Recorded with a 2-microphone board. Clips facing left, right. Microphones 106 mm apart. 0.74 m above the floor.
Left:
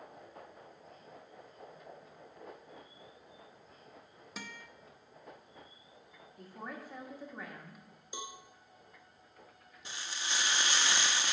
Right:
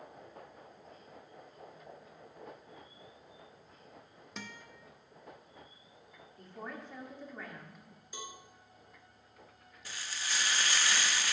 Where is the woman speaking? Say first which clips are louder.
Even; 10° left (ahead or behind), 1.4 m.